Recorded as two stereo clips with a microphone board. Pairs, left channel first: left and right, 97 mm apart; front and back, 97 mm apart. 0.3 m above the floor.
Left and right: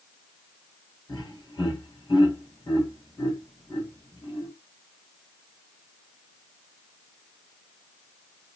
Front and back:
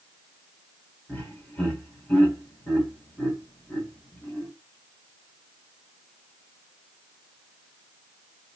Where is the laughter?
70° left, 2 m.